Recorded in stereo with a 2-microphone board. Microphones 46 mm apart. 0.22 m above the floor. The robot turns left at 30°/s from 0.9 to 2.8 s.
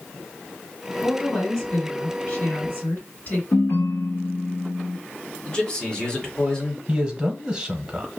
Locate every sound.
1.0 s a woman speaking: 160° left, 2.0 m; by 3.4 s 105° left, 2.0 m
3.5 s a ringtone: 65° left (ahead or behind), 1.3 m
5.5 s a man speaking: 20° left (ahead or behind), 1.3 m
6.9 s a man speaking: 20° right (ahead or behind), 1.2 m